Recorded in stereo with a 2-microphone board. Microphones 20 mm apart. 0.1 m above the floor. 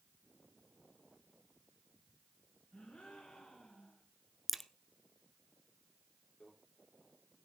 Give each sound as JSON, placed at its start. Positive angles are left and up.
{"t": 2.7, "sound": "a gasp", "side_deg": 75, "distance_m": 4.5}
{"t": 4.5, "sound": "a crack", "side_deg": 5, "distance_m": 0.8}
{"t": 6.4, "sound": "a microwave", "side_deg": 80, "distance_m": 8.5}